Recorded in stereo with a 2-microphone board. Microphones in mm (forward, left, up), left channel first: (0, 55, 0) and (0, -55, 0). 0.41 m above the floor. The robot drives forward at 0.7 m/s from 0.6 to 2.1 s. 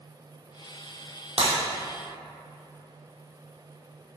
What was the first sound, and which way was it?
Breaking glass, 75° right (ahead or behind).